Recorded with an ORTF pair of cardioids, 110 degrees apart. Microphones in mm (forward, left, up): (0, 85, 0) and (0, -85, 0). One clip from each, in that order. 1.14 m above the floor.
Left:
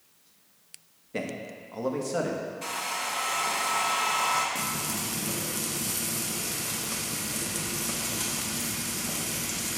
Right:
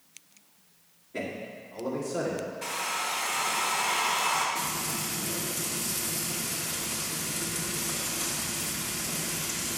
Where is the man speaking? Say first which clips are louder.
Left 1 dB; 30° left, 1.2 m; by 2.5 s 75° left, 1.4 m.